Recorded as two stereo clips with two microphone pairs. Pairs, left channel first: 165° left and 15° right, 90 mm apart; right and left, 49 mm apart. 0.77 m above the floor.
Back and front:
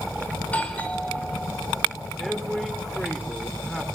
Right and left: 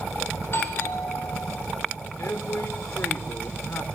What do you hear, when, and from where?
0.4 s a doorbell: 120° right, 4 m
2.2 s a man speaking: 105° right, 2.5 m